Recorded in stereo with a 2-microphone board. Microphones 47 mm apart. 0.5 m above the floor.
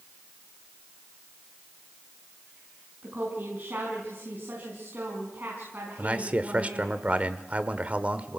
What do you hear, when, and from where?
3.0 s a woman speaking: 35° right (ahead or behind), 5 m
6.0 s a man speaking: 30° right (ahead or behind), 1.2 m